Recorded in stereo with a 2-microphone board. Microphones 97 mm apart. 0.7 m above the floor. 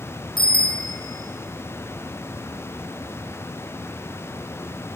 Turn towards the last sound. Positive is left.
turn(degrees=50)  # may be behind; listen again after turning